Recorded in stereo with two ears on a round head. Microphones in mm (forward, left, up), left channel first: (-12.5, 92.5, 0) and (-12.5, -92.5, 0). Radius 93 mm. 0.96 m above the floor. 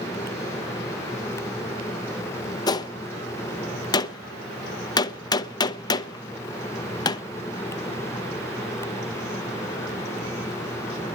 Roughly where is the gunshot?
Centre.